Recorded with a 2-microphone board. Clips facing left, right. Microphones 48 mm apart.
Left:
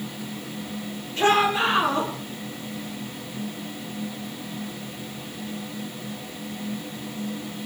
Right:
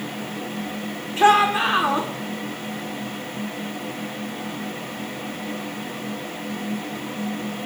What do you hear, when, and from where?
1.2 s a shout: 10° right (ahead or behind), 9 m